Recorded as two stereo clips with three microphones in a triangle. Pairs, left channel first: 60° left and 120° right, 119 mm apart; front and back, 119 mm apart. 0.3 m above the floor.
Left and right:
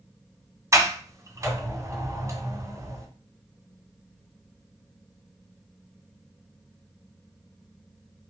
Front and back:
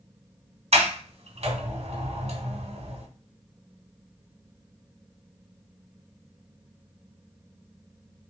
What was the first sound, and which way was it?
A sliding door, straight behind.